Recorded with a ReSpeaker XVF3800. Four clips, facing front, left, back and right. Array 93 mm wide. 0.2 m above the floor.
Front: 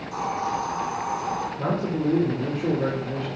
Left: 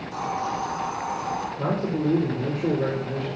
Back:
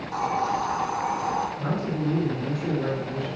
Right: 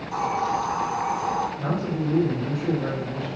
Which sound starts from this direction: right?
A hiss, at 0.1 s.